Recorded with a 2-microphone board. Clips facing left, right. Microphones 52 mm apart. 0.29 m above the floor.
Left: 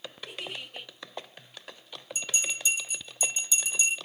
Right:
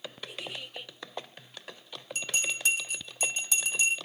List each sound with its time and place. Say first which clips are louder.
0.3 s a giggle: left 3 dB; 55° left (ahead or behind), 2.5 m
2.1 s a bell: right 1 dB; 55° right (ahead or behind), 1.2 m